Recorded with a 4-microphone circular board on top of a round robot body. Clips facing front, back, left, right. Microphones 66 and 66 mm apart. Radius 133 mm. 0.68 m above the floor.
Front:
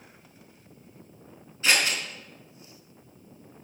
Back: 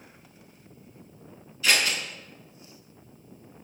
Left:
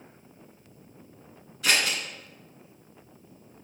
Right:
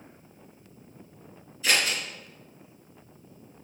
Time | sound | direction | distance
1.6 | scissors | 60° left | 4 m